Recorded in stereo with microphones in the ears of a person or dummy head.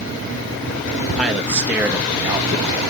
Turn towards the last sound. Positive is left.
turn(degrees=-25)  # may be behind; listen again after turning